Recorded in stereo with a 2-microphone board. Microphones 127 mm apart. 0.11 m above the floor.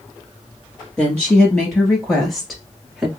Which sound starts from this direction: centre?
A woman speaking, at 1.0 s.